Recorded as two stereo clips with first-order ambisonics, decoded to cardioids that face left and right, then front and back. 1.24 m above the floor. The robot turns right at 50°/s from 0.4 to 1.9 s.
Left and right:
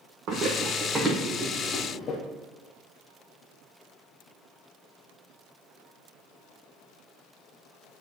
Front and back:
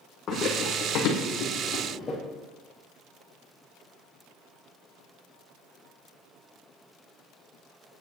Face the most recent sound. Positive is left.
turn(degrees=55)